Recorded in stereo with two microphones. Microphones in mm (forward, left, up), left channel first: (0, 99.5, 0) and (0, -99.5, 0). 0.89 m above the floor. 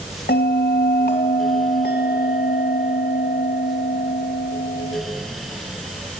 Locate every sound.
0.3 s a bell: 55° left (ahead or behind), 2 m